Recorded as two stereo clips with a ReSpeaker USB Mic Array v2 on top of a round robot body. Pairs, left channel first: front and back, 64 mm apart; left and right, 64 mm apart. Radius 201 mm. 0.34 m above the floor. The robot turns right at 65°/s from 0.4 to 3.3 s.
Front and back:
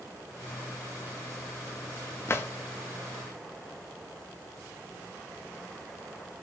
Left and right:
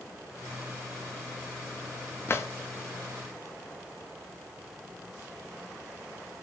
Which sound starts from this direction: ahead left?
A drawer, at 2.3 s.